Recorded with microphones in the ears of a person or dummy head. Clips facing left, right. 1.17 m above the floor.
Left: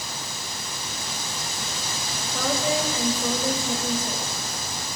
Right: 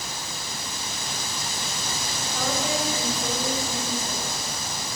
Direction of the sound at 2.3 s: 80° left.